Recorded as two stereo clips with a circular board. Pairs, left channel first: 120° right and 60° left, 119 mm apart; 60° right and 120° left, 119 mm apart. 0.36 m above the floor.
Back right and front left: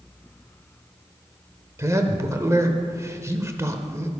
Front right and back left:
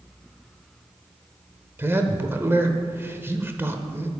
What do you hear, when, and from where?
1.8 s a man speaking: 80° left, 0.9 m